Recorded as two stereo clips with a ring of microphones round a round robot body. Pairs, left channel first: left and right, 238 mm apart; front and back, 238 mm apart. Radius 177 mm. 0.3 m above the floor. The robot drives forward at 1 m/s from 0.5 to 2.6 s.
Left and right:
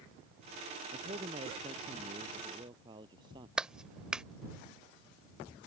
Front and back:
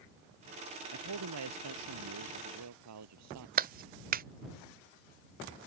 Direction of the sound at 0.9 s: 165° right.